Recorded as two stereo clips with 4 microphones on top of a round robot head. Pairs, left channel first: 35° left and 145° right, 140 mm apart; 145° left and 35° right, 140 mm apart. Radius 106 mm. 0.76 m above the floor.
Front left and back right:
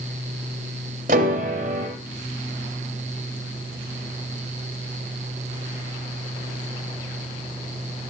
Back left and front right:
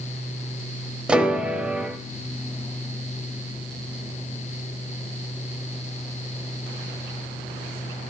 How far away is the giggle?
No giggle in this recording.